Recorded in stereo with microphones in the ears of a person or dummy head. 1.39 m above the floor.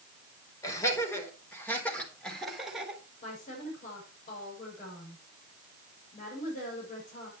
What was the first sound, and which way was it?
Laughter, 15° left (ahead or behind).